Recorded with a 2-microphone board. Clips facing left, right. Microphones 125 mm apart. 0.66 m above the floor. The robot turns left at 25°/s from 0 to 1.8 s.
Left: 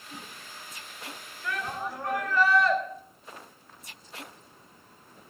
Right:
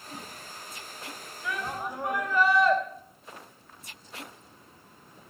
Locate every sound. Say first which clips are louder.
1.4 s a shout: even; 5° right (ahead or behind), 4 m; by 2.8 s 15° right (ahead or behind), 4 m